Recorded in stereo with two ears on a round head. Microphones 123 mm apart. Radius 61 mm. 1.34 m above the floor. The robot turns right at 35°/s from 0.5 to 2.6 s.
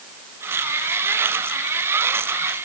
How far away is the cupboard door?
I don't hear a cupboard door.